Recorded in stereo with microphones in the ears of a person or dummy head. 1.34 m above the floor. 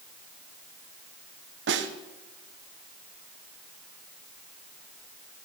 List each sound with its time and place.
1.7 s a snare drum: 60° right (ahead or behind), 1.0 m